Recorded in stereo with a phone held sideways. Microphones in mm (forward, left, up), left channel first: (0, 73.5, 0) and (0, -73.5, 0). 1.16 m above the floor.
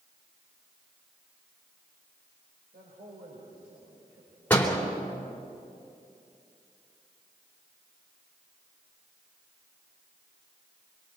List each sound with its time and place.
2.7 s a man speaking: 85° right, 5 m; by 5.5 s 75° right (ahead or behind), 6 m
4.5 s a door slam: 10° left (ahead or behind), 3 m